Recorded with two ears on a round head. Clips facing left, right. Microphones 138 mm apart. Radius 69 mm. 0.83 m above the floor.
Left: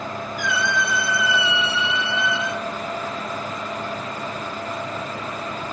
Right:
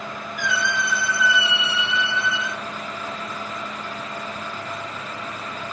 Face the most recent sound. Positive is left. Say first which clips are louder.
# left 1 dB
turn(degrees=-55)  # may be behind; listen again after turning